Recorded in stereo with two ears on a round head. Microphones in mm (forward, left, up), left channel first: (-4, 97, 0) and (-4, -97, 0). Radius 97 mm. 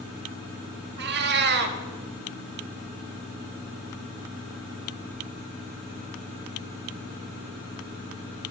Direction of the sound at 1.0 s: 50° right (ahead or behind).